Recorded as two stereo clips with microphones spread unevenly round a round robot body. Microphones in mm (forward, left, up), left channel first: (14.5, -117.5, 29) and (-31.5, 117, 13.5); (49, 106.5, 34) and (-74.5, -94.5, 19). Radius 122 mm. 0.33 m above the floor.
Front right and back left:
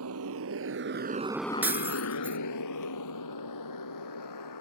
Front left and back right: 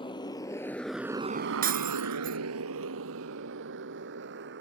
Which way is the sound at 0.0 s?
130° left.